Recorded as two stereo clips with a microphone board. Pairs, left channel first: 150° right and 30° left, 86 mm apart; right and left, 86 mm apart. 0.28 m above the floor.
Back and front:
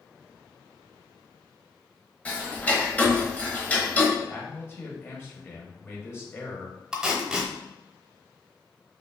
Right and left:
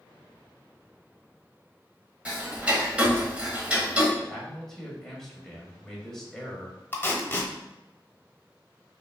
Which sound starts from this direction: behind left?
Ticking, at 2.2 s.